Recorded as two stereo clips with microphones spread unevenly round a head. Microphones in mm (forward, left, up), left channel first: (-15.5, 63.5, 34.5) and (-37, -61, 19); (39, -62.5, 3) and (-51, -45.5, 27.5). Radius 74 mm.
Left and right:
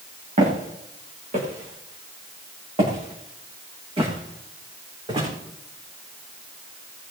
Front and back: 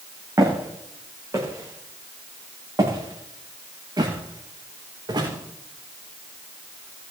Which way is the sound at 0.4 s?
135° right.